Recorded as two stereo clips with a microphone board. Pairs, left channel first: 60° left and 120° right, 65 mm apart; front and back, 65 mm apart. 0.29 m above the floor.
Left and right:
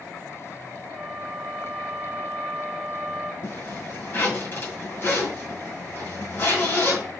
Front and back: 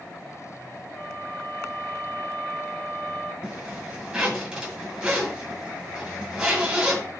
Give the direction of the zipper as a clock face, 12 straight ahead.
8 o'clock.